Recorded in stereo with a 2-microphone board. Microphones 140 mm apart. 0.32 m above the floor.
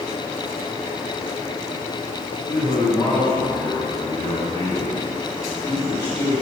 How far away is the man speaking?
About 1.6 m.